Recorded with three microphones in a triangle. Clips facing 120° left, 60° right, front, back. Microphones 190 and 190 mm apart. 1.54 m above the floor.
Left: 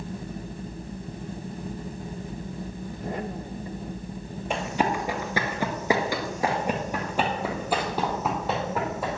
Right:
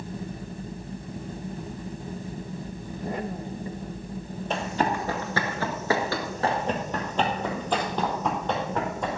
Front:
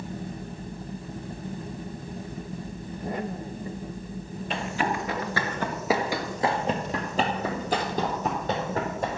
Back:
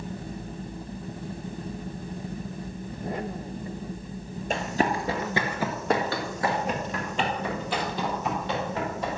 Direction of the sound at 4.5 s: 165° right.